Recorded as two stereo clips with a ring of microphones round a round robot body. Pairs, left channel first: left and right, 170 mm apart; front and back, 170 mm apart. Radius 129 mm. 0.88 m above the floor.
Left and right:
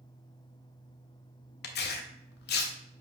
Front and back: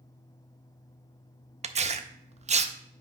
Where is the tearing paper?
125° left, 0.6 m.